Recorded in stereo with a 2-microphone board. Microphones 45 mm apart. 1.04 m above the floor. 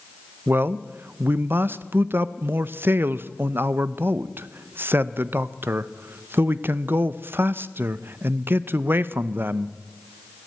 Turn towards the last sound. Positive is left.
turn(degrees=-50)  # may be behind; listen again after turning